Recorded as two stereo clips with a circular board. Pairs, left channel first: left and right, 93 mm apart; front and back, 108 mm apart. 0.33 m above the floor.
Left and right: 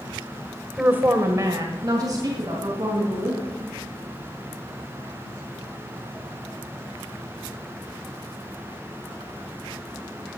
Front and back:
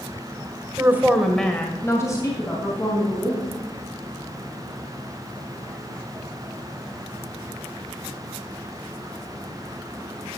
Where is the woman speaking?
150° right, 1.3 m; by 3.6 s 45° right, 4 m.